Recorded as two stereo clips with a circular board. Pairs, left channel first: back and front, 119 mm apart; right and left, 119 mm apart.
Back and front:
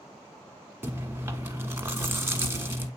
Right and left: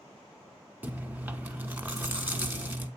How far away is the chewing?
About 0.7 m.